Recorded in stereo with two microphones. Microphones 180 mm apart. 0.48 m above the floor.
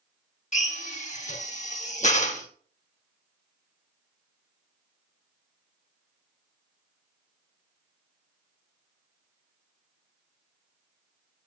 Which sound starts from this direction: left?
A drill, at 0.5 s.